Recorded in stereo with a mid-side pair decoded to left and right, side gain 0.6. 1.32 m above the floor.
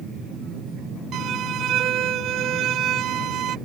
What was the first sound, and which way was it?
A violin, 55° right.